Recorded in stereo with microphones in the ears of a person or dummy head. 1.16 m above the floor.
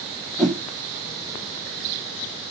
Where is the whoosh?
5° left (ahead or behind), 1.0 m.